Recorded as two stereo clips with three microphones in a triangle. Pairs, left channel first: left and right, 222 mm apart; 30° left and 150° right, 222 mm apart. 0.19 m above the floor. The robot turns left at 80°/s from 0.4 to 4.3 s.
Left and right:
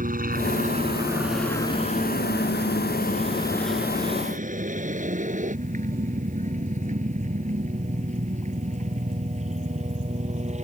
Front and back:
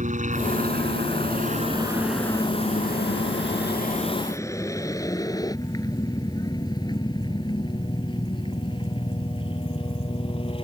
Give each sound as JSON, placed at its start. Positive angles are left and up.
{"t": 0.0, "sound": "a helicopter", "azimuth_deg": -115}